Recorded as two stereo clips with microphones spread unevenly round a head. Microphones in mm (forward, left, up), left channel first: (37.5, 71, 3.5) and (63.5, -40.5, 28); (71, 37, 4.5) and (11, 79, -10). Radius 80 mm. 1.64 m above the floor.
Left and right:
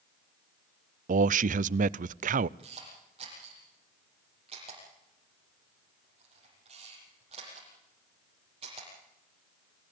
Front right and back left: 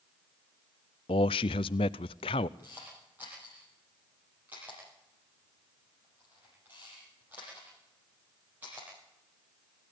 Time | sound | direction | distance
1.1 | a man speaking | 65° right | 0.5 m
2.6 | a camera shutter | 135° right | 8 m